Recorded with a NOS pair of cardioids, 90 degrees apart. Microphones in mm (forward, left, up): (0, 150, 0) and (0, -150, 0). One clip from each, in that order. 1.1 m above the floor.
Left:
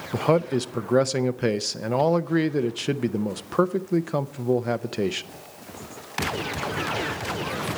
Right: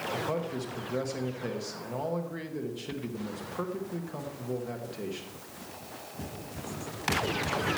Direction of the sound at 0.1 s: 70° left.